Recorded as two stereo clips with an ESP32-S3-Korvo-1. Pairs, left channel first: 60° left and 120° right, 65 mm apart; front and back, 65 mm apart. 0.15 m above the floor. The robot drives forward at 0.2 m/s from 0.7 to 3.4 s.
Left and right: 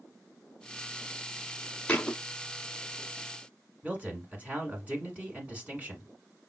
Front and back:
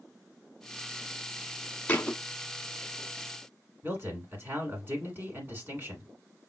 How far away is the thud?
About 0.7 m.